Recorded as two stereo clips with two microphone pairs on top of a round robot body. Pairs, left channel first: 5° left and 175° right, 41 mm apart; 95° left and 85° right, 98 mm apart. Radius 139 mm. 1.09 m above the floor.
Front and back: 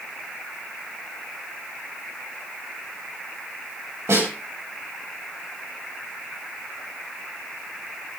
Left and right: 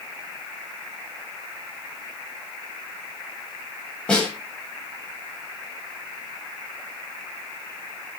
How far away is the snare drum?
About 8.5 m.